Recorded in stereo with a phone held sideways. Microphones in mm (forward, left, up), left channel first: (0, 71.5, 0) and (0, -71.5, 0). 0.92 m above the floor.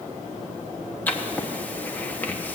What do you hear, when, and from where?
1.1 s writing: 10° left (ahead or behind), 1.1 m